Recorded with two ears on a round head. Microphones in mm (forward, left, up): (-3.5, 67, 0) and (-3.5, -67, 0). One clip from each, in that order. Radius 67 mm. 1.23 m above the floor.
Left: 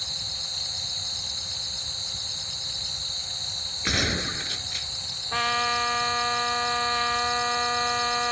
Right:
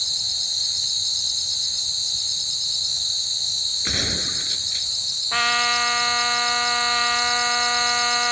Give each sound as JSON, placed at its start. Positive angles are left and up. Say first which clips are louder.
{"t": 0.0, "sound": "an insect", "louder": "right 7 dB", "side_deg": -45}
{"t": 3.9, "sound": "a gunshot", "louder": "right 3 dB", "side_deg": 15}
{"t": 5.3, "sound": "a trumpet", "louder": "right 4 dB", "side_deg": -55}